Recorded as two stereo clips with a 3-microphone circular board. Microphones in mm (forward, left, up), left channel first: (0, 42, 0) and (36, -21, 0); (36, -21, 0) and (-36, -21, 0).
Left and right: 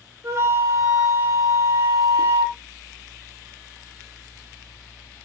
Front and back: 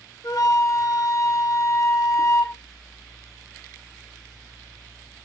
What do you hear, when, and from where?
0.2 s a flute: 15° right, 1.5 m